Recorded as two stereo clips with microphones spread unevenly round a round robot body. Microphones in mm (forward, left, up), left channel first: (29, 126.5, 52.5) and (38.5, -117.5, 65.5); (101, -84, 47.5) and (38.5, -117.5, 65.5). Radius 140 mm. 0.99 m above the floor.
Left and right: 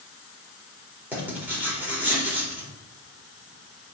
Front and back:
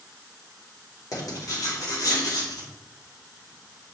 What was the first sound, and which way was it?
Writing, 5° right.